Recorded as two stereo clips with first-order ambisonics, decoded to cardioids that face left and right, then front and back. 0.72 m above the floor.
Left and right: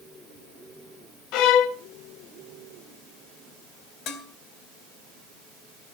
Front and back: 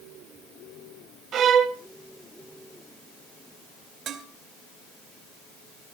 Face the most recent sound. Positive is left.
turn(degrees=125)